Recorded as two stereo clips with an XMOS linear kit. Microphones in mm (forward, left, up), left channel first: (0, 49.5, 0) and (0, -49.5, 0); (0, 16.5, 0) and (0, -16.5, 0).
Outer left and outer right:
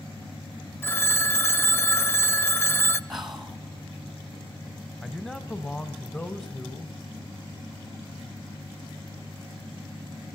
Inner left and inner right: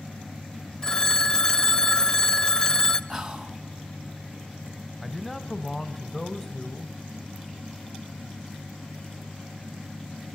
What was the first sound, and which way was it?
A phone ringing, 20° left (ahead or behind).